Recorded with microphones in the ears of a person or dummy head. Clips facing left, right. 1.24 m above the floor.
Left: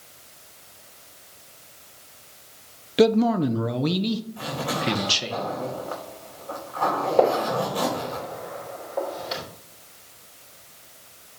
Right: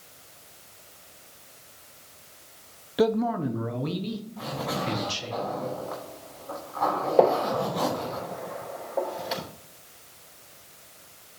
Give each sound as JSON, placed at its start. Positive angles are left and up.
{"t": 3.0, "sound": "a man speaking", "side_deg": 25, "distance_m": 0.6}
{"t": 4.4, "sound": "a zipper", "side_deg": 40, "distance_m": 4.0}
{"t": 7.2, "sound": "a gunshot", "side_deg": -10, "distance_m": 4.0}